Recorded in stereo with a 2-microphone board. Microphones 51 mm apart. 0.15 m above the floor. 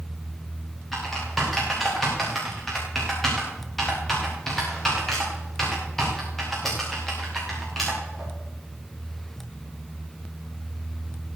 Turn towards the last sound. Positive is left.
turn(degrees=5)  # may be behind; listen again after turning